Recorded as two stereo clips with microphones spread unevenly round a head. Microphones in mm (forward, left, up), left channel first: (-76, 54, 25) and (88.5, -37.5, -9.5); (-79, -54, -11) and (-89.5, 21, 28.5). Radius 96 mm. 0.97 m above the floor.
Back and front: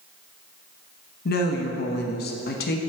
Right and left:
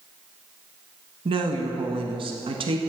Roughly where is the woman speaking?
Left.